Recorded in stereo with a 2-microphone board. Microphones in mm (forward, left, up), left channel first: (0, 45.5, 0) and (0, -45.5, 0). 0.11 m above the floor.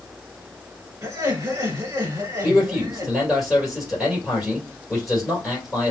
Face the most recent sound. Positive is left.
turn(degrees=0)  # may be behind; listen again after turning